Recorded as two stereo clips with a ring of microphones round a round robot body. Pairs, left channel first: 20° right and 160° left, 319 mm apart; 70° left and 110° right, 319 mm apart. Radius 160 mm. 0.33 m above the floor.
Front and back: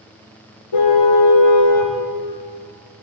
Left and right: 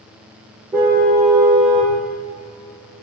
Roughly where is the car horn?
Ahead right.